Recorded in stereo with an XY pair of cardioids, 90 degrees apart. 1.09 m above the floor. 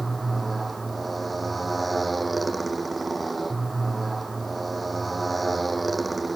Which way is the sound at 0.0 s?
25° right.